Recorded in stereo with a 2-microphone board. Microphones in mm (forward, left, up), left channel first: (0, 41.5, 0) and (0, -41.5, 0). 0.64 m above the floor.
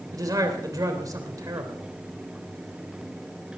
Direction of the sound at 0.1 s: 45° right (ahead or behind).